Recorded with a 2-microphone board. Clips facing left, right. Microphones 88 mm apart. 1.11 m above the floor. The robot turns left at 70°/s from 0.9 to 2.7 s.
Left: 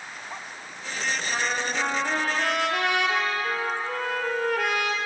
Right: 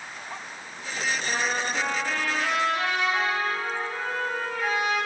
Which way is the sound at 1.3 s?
150° right.